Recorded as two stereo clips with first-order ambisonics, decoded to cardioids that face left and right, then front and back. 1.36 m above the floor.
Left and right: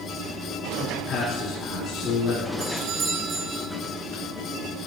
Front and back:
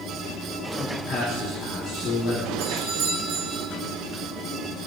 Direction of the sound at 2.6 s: 140° right.